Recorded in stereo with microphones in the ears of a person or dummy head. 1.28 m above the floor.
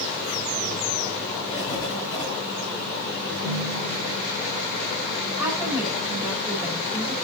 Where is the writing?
10° right (ahead or behind), 8 m.